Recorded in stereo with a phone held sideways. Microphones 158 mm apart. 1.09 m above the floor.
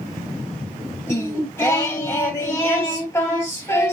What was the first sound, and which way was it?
Singing, 20° left (ahead or behind).